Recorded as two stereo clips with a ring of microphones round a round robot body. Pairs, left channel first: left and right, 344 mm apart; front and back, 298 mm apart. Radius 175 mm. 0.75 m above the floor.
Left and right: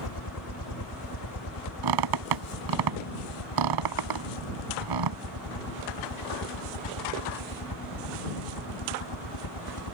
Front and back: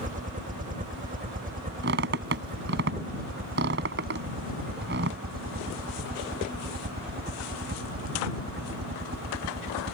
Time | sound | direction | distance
0.0 | a helicopter | 120° left | ?
1.8 | a squeak | 120° right | ?